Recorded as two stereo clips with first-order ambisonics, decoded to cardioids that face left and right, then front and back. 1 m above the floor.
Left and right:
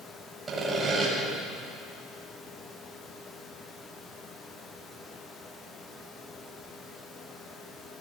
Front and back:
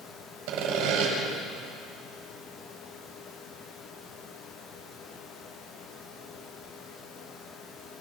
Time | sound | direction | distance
0.5 | sawing | 165° right | 6.5 m